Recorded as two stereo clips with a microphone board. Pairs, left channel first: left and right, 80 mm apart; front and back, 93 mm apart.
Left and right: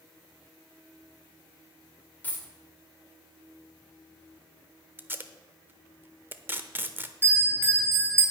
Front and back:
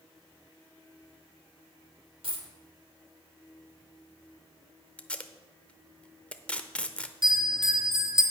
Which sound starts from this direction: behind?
A dropped coin, at 2.2 s.